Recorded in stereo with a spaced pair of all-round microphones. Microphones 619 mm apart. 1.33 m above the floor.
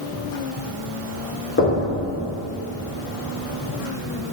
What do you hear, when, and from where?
1.6 s knocking: 20° left (ahead or behind), 2.5 m